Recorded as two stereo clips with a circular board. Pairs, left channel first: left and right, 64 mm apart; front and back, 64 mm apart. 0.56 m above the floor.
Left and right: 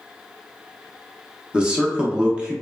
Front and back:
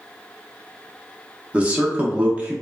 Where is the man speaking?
140° right, 0.6 m.